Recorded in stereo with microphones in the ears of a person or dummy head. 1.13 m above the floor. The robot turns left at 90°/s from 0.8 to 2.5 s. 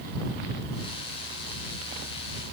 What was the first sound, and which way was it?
Only background noise.